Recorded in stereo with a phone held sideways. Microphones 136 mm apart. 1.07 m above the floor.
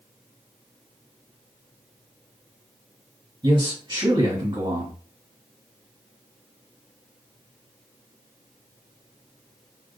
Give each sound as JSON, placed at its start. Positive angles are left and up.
{"t": 3.4, "sound": "a man speaking", "side_deg": -35, "distance_m": 1.5}